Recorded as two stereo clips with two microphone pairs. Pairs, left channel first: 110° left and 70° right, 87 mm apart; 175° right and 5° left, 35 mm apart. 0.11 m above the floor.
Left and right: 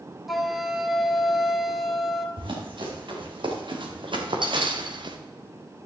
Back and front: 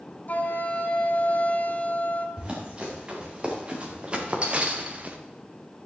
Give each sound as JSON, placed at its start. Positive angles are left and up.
{"t": 0.3, "sound": "a flute", "azimuth_deg": -160, "distance_m": 1.1}
{"t": 2.4, "sound": "running footsteps", "azimuth_deg": -55, "distance_m": 5.0}